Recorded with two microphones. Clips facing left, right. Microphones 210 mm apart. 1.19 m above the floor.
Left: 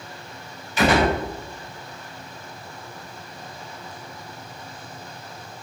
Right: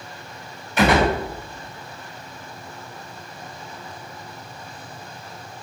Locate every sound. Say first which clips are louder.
0.8 s a gunshot: right 1 dB; 55° right (ahead or behind), 7 m